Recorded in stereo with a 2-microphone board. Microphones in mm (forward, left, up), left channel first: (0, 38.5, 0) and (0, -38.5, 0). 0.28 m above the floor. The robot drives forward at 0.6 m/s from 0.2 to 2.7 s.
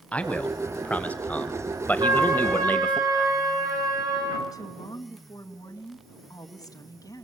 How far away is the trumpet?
About 4.5 m.